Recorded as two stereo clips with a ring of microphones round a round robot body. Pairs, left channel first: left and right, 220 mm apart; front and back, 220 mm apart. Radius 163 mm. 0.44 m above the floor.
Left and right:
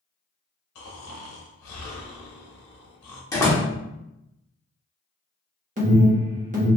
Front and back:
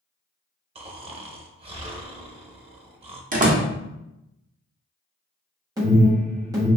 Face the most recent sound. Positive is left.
turn(degrees=-115)